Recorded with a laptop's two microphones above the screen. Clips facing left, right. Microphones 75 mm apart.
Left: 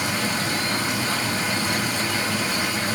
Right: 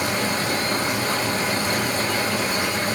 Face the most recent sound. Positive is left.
turn(degrees=-45)  # may be behind; listen again after turning